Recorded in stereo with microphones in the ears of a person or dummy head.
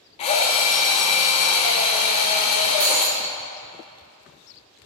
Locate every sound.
0.2 s a drill: 40° left (ahead or behind), 1.5 m
2.8 s breaking glass: 20° right (ahead or behind), 1.3 m